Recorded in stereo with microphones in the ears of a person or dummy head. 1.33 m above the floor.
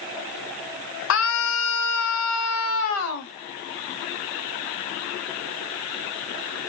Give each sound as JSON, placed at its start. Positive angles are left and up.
{"t": 1.1, "sound": "a scream", "side_deg": 70, "distance_m": 1.5}